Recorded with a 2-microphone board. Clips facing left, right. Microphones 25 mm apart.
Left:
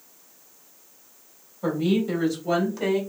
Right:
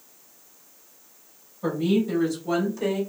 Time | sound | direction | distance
1.6 | a woman speaking | 15° left (ahead or behind) | 1.5 m